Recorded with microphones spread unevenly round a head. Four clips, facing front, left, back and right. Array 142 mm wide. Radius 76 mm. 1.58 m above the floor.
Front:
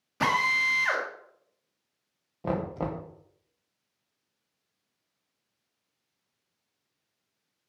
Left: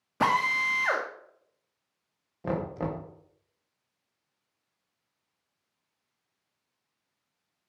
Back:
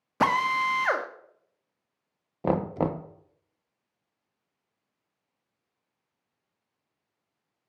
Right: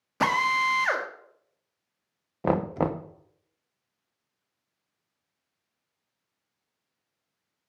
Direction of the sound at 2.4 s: 135° right.